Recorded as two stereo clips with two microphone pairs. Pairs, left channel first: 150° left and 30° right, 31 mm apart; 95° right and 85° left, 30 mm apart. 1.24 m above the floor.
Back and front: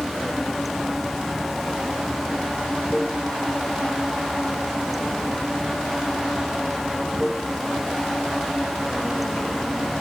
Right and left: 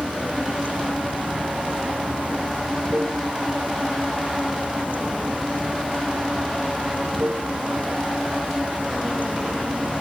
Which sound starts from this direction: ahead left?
Running water, at 0.0 s.